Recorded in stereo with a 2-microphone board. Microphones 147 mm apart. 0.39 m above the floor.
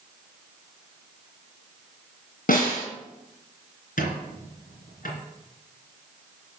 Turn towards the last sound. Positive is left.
turn(degrees=75)  # may be behind; listen again after turning